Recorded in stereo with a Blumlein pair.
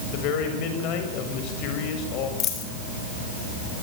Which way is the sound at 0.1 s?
40° left.